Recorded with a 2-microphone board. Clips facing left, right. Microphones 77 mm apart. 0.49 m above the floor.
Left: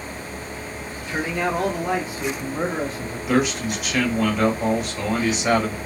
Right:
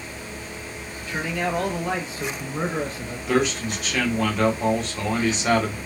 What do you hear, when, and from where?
1.1 s a man speaking: 30° left (ahead or behind), 0.9 m; by 3.2 s centre (ahead or behind), 1.3 m
3.3 s a man speaking: 5° left (ahead or behind), 1.3 m